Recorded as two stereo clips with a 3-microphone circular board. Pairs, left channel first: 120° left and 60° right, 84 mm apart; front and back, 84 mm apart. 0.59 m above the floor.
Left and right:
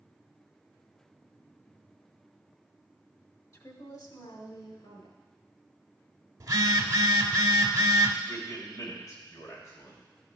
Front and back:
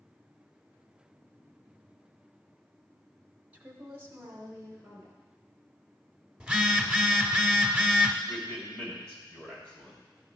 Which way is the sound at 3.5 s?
120° left.